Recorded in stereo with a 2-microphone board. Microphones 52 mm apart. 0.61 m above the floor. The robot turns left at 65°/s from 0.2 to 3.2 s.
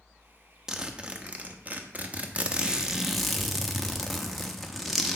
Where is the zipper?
20° right, 0.8 m; by 5.2 s straight behind, 0.8 m.